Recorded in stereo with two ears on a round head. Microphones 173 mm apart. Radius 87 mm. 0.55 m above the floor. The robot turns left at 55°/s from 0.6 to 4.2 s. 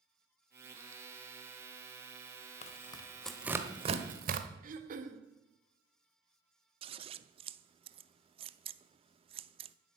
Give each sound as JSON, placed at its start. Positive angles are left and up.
{"t": 2.6, "sound": "tearing paper", "side_deg": 40, "distance_m": 1.2}
{"t": 4.6, "sound": "throat clearing", "side_deg": -45, "distance_m": 1.3}
{"t": 6.8, "sound": "scissors", "side_deg": -30, "distance_m": 0.6}